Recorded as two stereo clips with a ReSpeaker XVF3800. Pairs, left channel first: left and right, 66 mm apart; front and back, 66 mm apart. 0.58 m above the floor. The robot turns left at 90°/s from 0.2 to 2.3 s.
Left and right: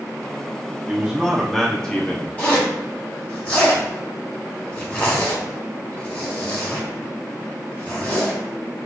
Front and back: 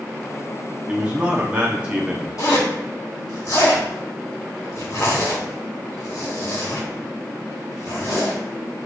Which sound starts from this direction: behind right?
A man speaking, at 0.9 s.